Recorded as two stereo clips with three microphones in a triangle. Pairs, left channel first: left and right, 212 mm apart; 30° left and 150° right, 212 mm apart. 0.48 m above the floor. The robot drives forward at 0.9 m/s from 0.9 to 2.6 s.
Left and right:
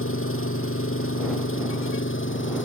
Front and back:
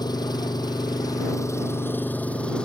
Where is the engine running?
100° left; by 2.7 s 115° left.